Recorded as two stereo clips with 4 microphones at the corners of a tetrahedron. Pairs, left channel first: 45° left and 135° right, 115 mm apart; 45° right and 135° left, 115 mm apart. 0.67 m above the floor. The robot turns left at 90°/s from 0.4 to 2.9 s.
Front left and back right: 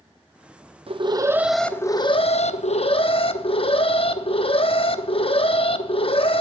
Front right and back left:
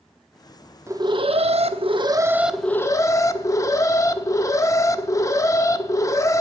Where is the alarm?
160° right, 0.6 m; by 6.4 s 15° left, 0.6 m.